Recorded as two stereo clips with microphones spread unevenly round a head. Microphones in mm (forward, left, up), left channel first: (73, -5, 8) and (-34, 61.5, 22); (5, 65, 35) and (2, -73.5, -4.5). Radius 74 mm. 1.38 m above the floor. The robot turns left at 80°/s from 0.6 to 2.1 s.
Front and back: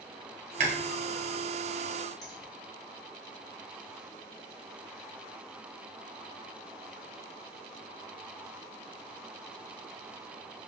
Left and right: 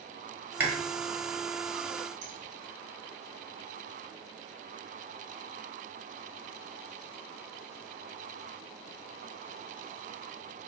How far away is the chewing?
About 1.1 m.